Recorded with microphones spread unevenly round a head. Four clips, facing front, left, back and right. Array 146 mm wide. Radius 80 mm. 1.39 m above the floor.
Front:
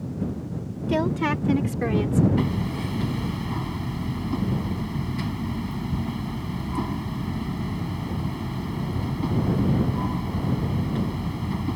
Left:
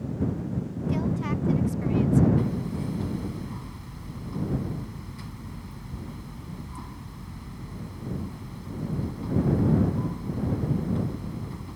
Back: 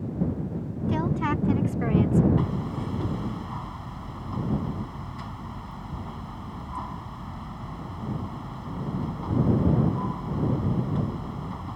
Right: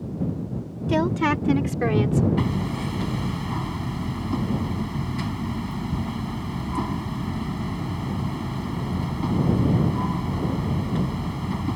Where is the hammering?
45° right.